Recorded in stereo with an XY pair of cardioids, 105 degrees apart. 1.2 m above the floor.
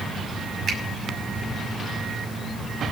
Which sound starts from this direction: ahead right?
A finger snap, at 0.7 s.